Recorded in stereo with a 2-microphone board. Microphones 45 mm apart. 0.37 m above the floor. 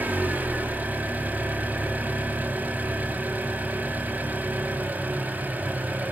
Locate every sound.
0.0 s an engine running: 40° right (ahead or behind), 2 m